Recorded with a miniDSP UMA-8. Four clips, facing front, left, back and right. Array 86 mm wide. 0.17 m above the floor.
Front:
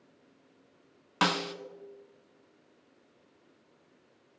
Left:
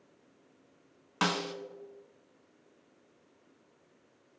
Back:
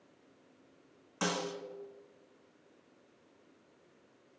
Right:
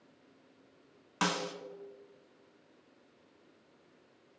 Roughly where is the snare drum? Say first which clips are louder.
Left 2 dB, front 6 dB; ahead.